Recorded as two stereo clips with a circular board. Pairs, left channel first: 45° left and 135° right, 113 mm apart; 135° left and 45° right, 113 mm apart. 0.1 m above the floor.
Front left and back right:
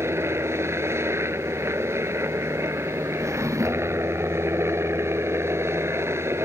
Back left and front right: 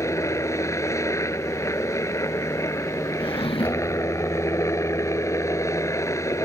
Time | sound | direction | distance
0.0 | a helicopter | 175° left | ?
3.2 | a drawer | 165° left | ?